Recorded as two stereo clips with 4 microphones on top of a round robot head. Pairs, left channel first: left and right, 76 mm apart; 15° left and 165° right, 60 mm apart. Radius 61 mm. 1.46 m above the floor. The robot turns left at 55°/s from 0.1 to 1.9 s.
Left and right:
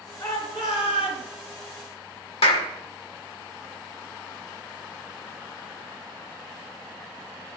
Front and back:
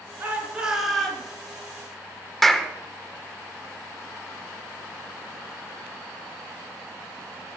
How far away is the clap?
About 1.2 m.